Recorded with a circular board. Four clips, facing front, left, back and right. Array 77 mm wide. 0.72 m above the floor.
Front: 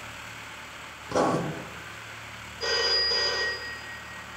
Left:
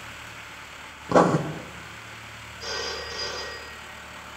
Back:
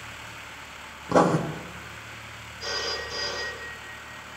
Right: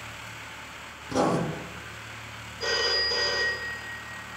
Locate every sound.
1.1 s writing: 120° left, 0.9 m
2.6 s a phone ringing: 40° right, 1.6 m